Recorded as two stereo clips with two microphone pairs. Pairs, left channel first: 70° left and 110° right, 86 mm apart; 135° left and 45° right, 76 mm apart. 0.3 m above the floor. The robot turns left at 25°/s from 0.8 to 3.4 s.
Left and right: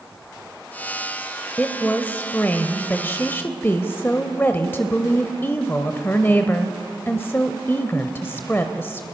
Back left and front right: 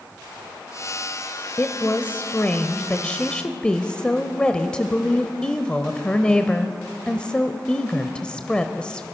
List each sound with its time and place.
1.6 s a woman speaking: 125° left, 1.0 m; by 9.0 s 75° left, 1.0 m